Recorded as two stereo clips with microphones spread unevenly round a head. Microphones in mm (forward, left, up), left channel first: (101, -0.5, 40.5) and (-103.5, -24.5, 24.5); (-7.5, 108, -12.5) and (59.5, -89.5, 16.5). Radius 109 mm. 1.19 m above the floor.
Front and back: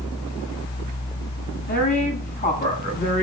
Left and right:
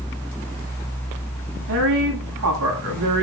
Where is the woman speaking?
45° right, 7 m.